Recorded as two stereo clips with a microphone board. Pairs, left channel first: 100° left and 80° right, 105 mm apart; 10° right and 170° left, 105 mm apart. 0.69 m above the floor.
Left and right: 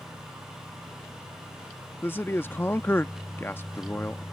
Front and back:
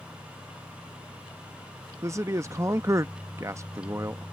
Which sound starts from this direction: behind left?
A man speaking, at 2.0 s.